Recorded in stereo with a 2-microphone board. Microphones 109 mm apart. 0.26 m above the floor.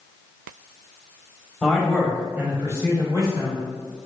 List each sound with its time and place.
1.6 s a man speaking: 5° left (ahead or behind), 1.0 m; by 3.6 s 45° right (ahead or behind), 1.4 m